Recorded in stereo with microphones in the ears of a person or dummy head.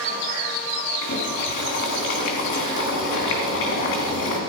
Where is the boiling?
55° left (ahead or behind), 3 m.